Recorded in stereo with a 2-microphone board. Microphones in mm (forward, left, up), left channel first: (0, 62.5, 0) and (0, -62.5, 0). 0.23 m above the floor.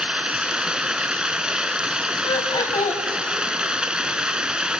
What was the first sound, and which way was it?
Running water, 5° right (ahead or behind).